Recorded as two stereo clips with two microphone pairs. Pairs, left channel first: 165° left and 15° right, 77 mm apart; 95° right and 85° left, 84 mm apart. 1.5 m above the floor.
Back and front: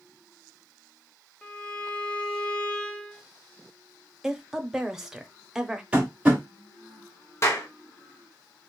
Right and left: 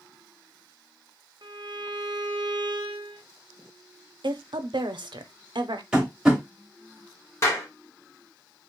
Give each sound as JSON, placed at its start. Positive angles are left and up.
{"t": 1.4, "sound": "a violin", "azimuth_deg": 95, "distance_m": 0.5}
{"t": 4.2, "sound": "a woman speaking", "azimuth_deg": 70, "distance_m": 0.5}
{"t": 5.9, "sound": "tapping", "azimuth_deg": 20, "distance_m": 1.1}
{"t": 7.4, "sound": "a clap", "azimuth_deg": -145, "distance_m": 1.0}